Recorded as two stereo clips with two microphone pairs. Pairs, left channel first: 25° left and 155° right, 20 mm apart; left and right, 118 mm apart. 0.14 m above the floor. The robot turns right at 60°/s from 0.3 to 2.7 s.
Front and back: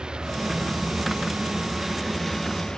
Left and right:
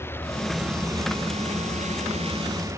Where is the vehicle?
160° left; by 2.8 s 25° right.